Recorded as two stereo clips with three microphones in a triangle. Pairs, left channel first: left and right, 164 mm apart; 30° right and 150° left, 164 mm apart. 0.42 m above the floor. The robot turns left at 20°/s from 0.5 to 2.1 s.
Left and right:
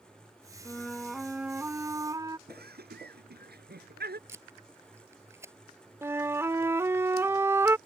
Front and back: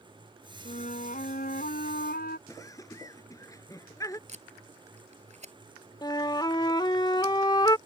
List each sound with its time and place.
0.7 s a flute: 10° left; by 2.4 s 20° right
2.5 s laughter: 100° right
4.3 s tape being pulled: 165° right
6.0 s a flute: 40° right